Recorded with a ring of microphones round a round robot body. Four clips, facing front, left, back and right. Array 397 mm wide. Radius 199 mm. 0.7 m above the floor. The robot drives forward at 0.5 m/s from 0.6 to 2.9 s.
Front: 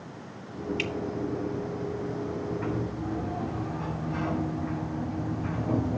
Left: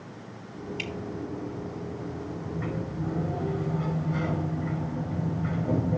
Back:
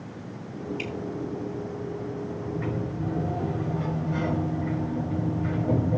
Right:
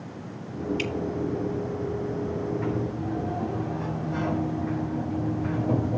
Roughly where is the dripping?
Ahead.